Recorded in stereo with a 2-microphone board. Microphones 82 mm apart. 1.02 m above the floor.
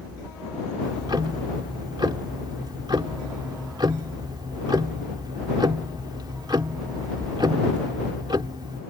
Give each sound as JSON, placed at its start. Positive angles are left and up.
{"t": 0.8, "sound": "ticking", "side_deg": -60}